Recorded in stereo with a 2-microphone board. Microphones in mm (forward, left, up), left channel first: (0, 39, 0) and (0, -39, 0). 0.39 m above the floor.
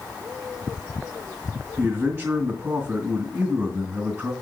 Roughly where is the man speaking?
Right.